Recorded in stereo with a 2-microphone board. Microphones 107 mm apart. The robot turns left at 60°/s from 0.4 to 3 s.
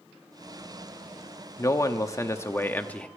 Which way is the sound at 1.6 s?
25° left (ahead or behind).